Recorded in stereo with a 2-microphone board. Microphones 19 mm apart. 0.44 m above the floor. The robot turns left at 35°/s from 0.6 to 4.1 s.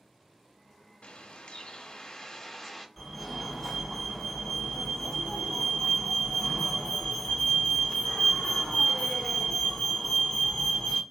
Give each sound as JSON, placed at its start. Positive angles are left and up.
{"t": 1.0, "sound": "a bird", "azimuth_deg": 70, "distance_m": 0.6}
{"t": 3.0, "sound": "a fire alarm", "azimuth_deg": 155, "distance_m": 2.5}